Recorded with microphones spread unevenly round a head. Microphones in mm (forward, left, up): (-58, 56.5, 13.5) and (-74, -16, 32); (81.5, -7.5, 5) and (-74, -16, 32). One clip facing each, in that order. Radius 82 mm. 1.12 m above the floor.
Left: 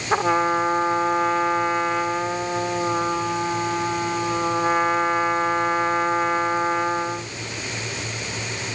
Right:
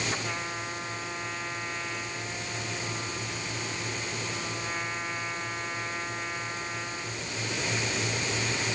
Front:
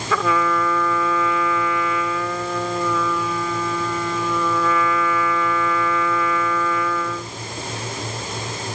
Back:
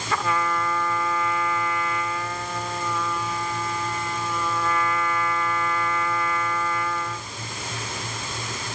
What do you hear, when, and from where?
0.1 s a trumpet: 20° left